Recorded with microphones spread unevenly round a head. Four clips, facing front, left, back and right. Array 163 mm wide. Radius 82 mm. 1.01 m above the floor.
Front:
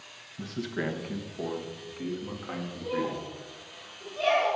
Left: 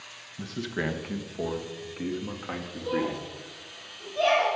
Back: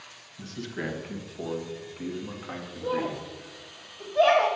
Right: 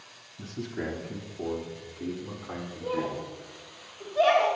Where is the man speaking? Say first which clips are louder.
Left 3 dB, front 2 dB; 55° left, 1.0 m; by 3.2 s 100° left, 2.5 m.